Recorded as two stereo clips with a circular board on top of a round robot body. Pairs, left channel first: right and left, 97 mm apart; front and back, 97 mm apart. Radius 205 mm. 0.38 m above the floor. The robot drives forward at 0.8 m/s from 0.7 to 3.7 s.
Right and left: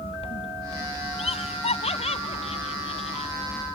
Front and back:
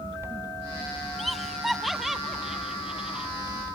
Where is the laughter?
90° right; by 3.3 s 95° right.